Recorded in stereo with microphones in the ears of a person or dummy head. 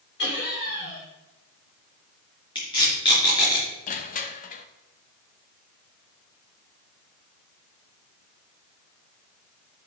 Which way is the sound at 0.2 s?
50° left (ahead or behind).